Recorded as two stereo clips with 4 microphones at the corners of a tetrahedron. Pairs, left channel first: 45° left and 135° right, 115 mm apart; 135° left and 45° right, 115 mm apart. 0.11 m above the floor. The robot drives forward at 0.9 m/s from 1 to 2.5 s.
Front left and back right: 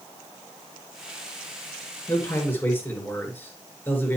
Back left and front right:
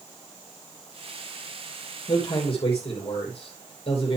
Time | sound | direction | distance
2.1 | a man speaking | 105° left | 2.5 m